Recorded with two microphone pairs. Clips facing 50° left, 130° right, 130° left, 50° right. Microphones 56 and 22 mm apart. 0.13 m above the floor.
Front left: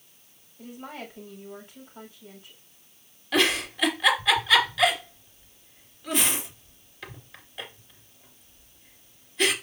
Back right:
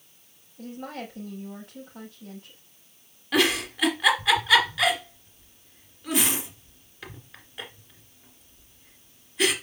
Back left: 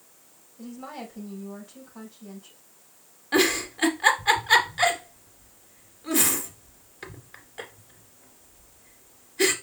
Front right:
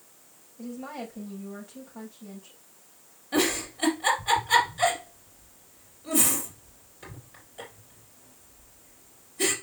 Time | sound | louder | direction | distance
0.6 | a woman speaking | back right 3 dB, front right 1 dB | 150° right | 5.5 m
3.3 | a giggle | back right 1 dB, back left 4 dB | 150° left | 1.9 m